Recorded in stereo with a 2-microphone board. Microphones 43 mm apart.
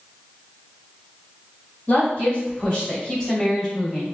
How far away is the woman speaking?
About 1.2 m.